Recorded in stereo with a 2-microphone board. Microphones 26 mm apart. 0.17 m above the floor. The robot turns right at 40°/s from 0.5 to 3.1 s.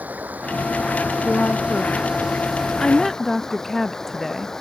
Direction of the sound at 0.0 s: 85° right.